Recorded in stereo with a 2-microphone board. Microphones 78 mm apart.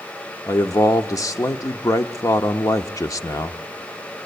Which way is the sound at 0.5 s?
40° left (ahead or behind).